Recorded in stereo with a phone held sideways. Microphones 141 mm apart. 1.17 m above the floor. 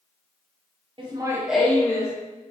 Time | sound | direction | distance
1.0 | laughter | 35° right (ahead or behind) | 0.7 m